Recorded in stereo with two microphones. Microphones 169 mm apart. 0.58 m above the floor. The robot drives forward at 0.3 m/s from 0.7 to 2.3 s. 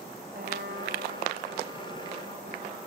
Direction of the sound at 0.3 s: 60° right (ahead or behind).